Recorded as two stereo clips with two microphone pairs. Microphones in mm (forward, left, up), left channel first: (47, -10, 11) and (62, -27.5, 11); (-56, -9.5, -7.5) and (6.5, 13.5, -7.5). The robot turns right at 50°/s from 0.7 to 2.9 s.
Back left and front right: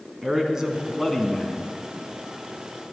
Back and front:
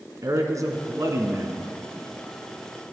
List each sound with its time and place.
0.2 s a man speaking: 15° left, 1.9 m; by 1.7 s 65° left, 1.9 m